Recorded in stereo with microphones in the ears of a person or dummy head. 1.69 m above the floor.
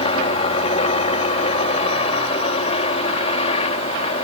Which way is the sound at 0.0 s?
35° left (ahead or behind).